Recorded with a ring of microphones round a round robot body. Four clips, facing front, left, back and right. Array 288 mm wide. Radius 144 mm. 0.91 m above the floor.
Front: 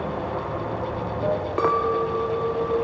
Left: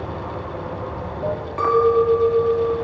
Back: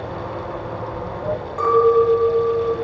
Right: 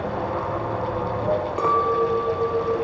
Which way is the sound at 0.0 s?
15° right.